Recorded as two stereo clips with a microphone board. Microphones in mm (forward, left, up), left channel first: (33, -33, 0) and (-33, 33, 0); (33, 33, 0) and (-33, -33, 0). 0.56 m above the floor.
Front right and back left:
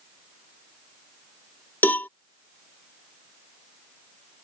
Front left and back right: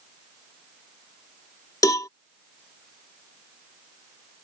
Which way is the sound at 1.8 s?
15° left.